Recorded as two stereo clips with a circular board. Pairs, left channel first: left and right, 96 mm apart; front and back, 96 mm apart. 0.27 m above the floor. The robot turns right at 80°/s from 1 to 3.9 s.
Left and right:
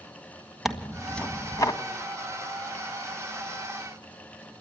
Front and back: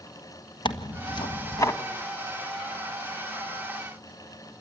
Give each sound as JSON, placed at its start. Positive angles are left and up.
{"t": 0.7, "sound": "tearing paper", "azimuth_deg": -5, "distance_m": 1.7}